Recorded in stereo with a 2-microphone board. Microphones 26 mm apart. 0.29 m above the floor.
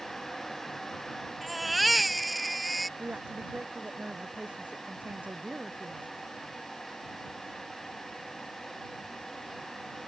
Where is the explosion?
I don't hear an explosion.